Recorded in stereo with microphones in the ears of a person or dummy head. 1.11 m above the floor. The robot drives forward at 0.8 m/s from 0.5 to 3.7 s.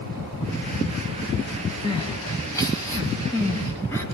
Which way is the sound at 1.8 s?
20° left (ahead or behind).